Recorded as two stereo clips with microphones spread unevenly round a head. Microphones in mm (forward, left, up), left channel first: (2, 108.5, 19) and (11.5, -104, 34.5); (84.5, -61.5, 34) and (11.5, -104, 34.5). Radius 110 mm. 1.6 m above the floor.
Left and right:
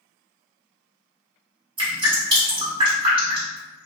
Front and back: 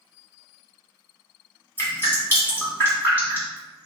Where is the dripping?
30° right, 1.7 m.